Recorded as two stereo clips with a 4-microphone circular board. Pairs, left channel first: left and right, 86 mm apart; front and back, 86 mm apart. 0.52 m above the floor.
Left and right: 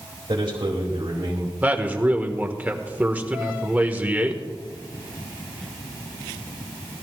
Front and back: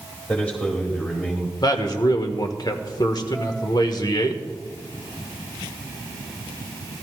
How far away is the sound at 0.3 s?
About 2 m.